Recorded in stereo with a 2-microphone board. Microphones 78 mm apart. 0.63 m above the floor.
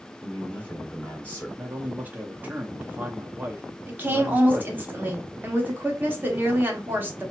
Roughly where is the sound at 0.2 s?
Left.